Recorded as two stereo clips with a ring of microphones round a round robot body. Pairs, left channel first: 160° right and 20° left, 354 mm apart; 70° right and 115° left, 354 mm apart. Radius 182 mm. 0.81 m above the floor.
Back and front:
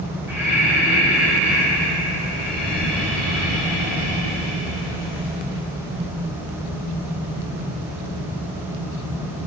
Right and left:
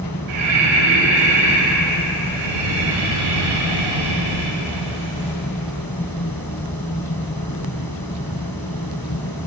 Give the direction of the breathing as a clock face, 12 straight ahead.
8 o'clock.